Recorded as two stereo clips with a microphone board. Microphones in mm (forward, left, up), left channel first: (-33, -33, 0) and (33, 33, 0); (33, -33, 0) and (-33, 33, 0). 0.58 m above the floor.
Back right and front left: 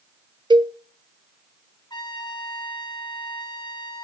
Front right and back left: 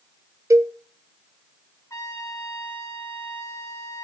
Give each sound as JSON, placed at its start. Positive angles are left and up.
{"t": 0.5, "sound": "a cowbell", "azimuth_deg": 80, "distance_m": 0.5}
{"t": 1.9, "sound": "a trumpet", "azimuth_deg": -100, "distance_m": 4.0}